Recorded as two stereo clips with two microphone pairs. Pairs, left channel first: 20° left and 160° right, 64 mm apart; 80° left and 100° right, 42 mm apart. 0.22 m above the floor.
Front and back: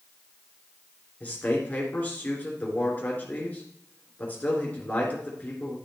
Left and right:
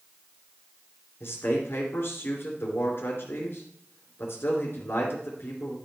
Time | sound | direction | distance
1.2 | a man speaking | 80° left | 3 m